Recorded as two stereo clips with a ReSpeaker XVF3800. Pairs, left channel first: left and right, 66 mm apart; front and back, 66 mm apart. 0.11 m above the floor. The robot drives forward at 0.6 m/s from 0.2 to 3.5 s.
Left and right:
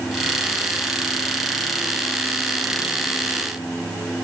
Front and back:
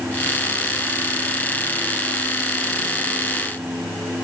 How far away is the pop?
I don't hear a pop.